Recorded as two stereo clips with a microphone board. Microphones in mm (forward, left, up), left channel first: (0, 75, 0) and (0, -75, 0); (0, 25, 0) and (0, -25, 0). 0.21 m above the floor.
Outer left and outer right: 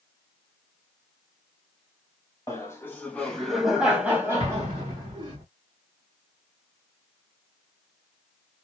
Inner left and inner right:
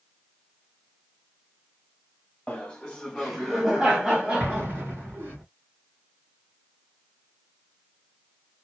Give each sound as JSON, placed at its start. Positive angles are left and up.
{"t": 2.5, "sound": "laughter", "side_deg": 20, "distance_m": 1.3}
{"t": 4.4, "sound": "an explosion", "side_deg": -35, "distance_m": 2.0}